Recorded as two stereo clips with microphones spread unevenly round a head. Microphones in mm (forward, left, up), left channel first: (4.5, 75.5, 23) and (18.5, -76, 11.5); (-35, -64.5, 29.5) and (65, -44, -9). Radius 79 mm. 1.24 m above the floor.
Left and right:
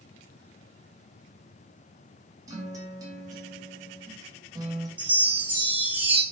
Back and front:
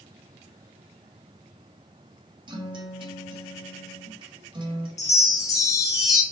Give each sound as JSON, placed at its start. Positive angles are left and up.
{"t": 2.5, "sound": "a guitar", "azimuth_deg": -20, "distance_m": 0.9}
{"t": 5.0, "sound": "a chime", "azimuth_deg": -165, "distance_m": 0.6}